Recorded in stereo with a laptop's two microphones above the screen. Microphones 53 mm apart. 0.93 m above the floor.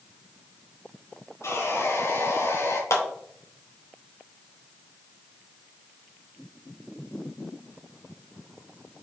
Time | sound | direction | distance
1.4 | sawing | 65° left (ahead or behind) | 4 m
2.9 | a clap | 70° left (ahead or behind) | 3 m